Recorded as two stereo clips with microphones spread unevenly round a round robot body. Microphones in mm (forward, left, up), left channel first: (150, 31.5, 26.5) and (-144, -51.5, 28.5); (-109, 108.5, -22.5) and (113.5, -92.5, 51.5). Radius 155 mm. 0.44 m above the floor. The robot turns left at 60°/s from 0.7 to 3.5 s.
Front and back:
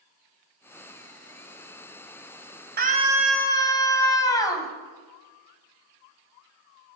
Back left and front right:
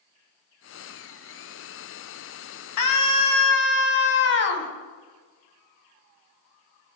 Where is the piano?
No piano in this recording.